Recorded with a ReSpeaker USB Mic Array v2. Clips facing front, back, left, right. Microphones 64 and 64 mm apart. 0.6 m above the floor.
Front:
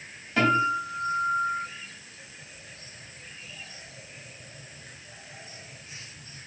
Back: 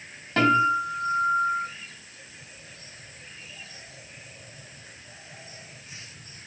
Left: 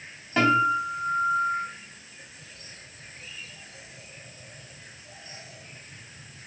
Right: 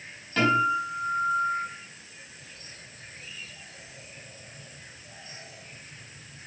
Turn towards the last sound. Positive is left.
turn(degrees=160)